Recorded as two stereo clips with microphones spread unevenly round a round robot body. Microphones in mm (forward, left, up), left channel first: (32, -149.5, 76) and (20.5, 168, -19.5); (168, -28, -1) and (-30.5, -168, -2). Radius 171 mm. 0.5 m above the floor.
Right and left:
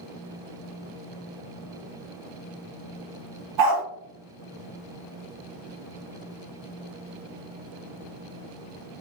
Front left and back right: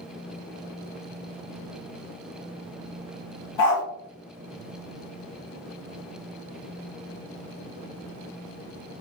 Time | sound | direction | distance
3.6 | a dog barking | 70° left | 1.3 m